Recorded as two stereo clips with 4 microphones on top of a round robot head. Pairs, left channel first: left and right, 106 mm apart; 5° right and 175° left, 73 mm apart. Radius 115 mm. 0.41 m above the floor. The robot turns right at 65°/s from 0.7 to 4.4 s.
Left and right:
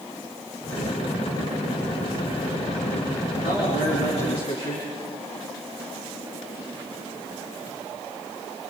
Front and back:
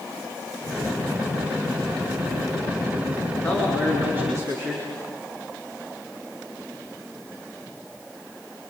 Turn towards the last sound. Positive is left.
turn(degrees=130)